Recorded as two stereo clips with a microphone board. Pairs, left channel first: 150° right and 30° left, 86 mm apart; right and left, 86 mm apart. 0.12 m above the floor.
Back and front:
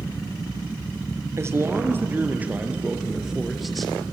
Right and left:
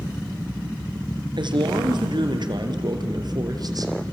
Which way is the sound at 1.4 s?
85° left.